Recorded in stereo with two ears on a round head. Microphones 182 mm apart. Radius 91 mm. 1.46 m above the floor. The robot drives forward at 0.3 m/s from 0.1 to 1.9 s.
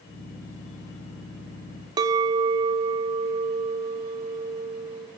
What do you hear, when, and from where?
2.0 s a clink: 20° right (ahead or behind), 0.5 m